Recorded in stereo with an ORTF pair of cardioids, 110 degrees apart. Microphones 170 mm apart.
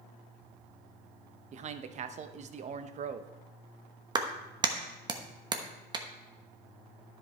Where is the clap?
25° right, 1.0 m.